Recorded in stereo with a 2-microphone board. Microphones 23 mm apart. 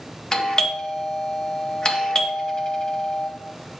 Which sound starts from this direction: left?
A doorbell, at 0.3 s.